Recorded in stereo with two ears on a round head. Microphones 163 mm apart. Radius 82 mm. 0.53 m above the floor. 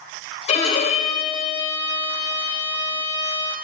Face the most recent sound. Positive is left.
turn(degrees=40)  # may be behind; listen again after turning